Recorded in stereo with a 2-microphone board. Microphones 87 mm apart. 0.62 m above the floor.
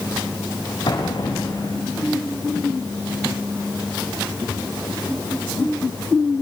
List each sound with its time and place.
0.9 s an explosion: 55° left (ahead or behind), 9 m